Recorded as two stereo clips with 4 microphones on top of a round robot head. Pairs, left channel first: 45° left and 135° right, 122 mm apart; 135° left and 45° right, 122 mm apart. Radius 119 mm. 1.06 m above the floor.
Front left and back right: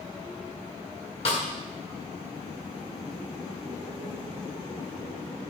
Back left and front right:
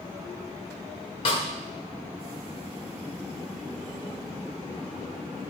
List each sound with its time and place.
1.2 s a snare drum: 85° left, 1.1 m